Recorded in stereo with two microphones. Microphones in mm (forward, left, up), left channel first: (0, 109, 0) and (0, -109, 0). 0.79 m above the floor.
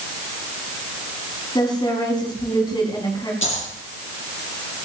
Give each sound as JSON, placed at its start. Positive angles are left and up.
{"t": 1.6, "sound": "a woman speaking", "side_deg": 20, "distance_m": 5.5}
{"t": 3.4, "sound": "a dropped coin", "side_deg": 65, "distance_m": 4.5}